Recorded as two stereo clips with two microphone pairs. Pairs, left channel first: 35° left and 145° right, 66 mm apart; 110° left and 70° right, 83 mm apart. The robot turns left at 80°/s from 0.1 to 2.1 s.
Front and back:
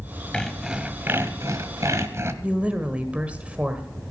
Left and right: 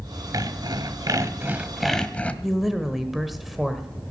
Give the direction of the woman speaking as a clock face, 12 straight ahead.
5 o'clock.